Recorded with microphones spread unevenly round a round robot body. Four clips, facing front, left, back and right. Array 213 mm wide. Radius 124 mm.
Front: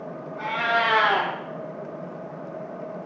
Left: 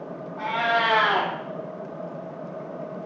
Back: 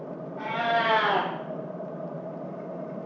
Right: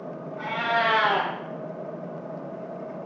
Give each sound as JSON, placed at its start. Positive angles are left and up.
{"t": 0.4, "sound": "a cat meowing", "azimuth_deg": 155, "distance_m": 0.6}